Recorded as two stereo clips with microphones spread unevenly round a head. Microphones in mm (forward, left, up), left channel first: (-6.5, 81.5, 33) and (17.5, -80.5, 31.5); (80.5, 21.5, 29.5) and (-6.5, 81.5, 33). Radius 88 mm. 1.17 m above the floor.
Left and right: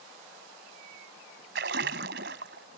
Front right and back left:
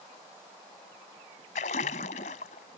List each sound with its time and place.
1.6 s a splash: 60° right